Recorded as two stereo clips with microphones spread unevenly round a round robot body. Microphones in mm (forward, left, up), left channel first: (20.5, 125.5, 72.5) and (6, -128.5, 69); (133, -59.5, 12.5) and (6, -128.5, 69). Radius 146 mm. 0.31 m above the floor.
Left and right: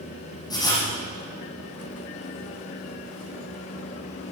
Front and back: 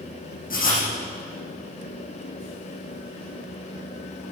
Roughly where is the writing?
Ahead.